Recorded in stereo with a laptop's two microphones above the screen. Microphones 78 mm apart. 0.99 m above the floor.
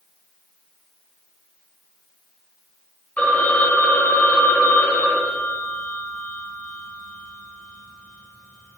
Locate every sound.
3.2 s a phone ringing: 20° left (ahead or behind), 2.5 m